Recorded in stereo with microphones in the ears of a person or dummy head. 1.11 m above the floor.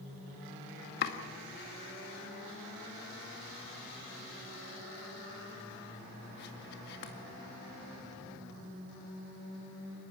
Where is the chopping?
45° left (ahead or behind), 2 m.